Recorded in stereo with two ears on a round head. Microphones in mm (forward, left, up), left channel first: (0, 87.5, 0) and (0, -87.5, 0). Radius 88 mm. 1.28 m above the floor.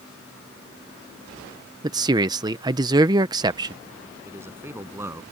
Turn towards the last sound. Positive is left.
turn(degrees=-15)  # may be behind; listen again after turning